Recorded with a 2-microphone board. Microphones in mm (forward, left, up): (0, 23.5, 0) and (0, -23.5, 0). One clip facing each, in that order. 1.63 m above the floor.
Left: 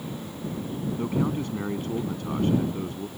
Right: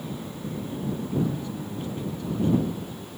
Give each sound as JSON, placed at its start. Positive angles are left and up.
{"t": 1.0, "sound": "a man speaking", "side_deg": 55}